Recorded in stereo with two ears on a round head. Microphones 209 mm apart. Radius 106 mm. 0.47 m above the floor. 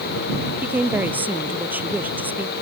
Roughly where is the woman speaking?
Centre.